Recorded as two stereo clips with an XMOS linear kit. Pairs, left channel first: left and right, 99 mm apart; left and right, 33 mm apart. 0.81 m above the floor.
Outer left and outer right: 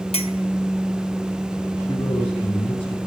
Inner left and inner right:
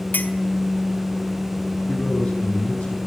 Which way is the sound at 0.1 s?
80° left.